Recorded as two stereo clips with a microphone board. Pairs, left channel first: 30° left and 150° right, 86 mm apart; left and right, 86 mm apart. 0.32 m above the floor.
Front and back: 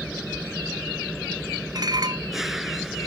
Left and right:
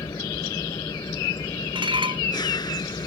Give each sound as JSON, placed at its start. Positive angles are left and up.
{"t": 0.0, "sound": "an engine running", "azimuth_deg": 125}
{"t": 1.8, "sound": "dishes clattering", "azimuth_deg": -110}